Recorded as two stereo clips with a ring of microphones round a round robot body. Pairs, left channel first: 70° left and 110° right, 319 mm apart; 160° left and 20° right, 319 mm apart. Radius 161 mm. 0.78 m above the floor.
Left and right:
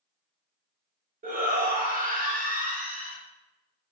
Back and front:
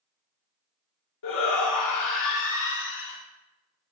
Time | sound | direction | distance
1.2 | a shout | 175° right | 1.6 m